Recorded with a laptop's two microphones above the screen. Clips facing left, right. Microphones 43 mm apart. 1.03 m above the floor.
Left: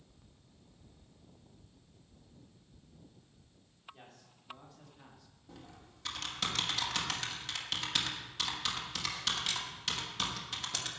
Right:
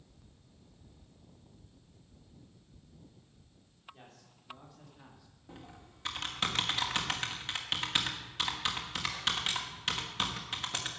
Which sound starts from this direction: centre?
A man speaking, at 3.9 s.